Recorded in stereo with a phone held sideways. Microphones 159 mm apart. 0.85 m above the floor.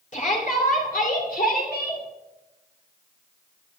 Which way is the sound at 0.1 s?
55° left (ahead or behind).